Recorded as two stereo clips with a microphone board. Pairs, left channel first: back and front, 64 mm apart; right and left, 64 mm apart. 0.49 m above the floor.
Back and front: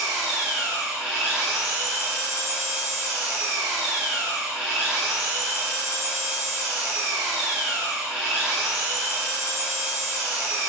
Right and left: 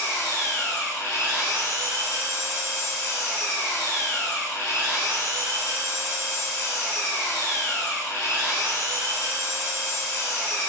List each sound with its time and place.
0.0 s an engine running: 65° right, 1.4 m